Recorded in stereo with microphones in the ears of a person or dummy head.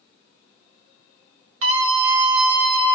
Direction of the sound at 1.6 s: 80° right.